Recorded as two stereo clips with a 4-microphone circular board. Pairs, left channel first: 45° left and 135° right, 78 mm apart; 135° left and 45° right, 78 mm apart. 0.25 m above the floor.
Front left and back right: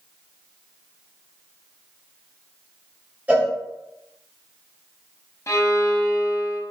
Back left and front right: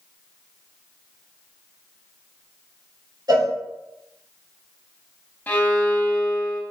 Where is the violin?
75° left, 0.6 m.